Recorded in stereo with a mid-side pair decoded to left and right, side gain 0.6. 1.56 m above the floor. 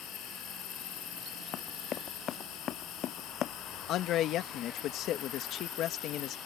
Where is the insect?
65° left.